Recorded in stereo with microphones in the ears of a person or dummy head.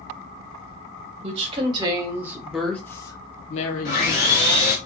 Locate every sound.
1.2 s a woman speaking: 40° right (ahead or behind), 1.2 m; by 4.3 s 60° left (ahead or behind), 1.0 m
3.9 s sawing: 45° left (ahead or behind), 1.0 m